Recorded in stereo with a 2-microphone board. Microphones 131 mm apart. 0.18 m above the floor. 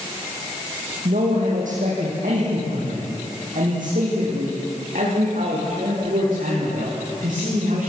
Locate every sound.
1.1 s a man speaking: 80° right, 7 m; by 7.9 s 85° right, 14 m